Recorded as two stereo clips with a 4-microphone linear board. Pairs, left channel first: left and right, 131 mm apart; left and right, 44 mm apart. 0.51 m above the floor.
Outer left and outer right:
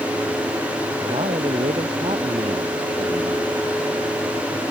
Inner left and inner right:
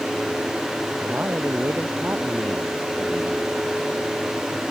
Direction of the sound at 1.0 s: 55° right (ahead or behind).